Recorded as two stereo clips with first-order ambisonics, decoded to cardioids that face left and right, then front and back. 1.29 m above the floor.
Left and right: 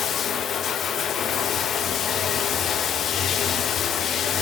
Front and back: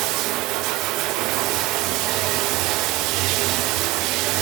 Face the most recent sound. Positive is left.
turn(degrees=150)